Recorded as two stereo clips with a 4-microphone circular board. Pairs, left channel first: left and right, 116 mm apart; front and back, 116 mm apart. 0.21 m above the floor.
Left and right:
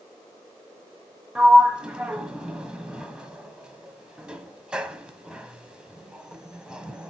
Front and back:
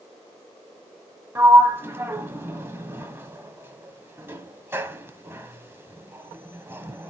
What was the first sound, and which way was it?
A sliding door, 160° right.